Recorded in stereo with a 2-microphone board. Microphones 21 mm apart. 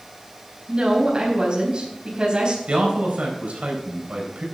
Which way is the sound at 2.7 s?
65° right (ahead or behind).